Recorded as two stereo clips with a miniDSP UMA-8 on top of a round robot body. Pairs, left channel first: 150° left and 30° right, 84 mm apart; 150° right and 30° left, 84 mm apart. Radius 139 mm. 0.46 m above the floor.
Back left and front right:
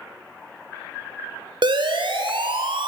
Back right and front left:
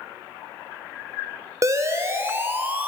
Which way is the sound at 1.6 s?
20° right.